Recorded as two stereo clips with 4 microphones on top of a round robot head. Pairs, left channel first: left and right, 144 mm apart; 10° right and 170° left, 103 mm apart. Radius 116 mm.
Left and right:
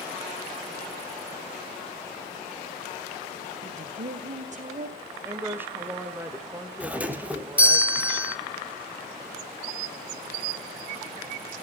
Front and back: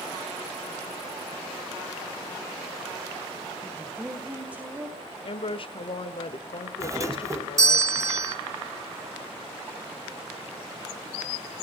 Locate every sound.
3.6 s a woman speaking: 110° right, 1.7 m
5.2 s a woman speaking: 15° right, 1.4 m
6.8 s a doorbell: 160° right, 2 m